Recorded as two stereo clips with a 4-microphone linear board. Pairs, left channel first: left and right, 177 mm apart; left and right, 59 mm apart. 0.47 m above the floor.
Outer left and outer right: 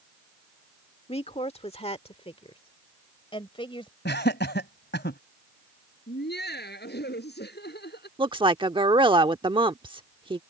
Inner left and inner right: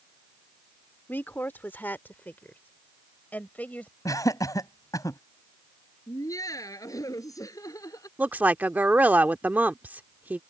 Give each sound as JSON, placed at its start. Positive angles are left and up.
{"t": 1.1, "sound": "a woman speaking", "side_deg": 35}
{"t": 4.0, "sound": "laughter", "side_deg": 75}
{"t": 6.1, "sound": "laughter", "side_deg": 65}
{"t": 8.2, "sound": "a woman speaking", "side_deg": -25}